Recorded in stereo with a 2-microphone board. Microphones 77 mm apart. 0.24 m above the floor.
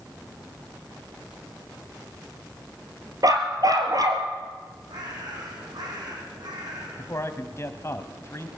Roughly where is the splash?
I don't hear a splash.